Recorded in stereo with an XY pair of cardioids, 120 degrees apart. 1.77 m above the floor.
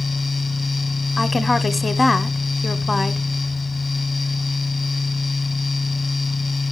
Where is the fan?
20° left, 1.3 m.